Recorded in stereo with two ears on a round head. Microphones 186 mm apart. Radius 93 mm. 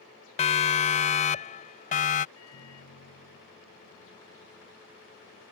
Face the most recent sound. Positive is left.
turn(degrees=80)